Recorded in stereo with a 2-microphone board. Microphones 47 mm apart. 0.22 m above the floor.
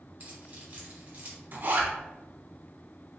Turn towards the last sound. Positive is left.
turn(degrees=-40)  # may be behind; listen again after turning